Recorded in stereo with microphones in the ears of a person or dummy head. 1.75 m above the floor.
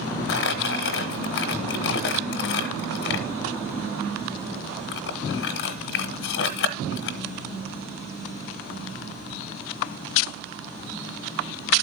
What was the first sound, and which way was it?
Crumpling, 60° left (ahead or behind).